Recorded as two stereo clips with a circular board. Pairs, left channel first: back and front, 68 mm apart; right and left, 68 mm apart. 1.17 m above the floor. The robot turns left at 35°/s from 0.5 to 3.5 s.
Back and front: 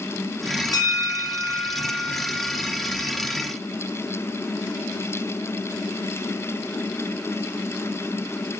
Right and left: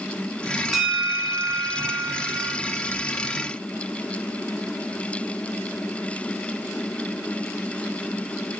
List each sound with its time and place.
0.7 s a bell: 175° left, 0.6 m; by 2.6 s 110° left, 0.6 m